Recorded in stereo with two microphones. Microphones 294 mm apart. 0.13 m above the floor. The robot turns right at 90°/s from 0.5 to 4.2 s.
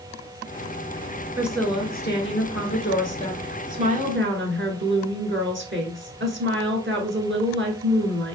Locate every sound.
1.4 s a woman speaking: 10° right, 1.5 m; by 8.4 s 115° right, 1.5 m